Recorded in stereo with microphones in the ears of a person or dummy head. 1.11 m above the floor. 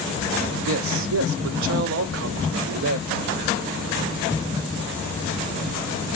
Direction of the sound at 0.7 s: 75° right (ahead or behind).